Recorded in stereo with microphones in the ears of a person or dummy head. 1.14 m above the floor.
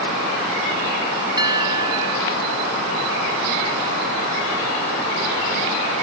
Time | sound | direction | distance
1.4 | a bell | 20° right (ahead or behind) | ?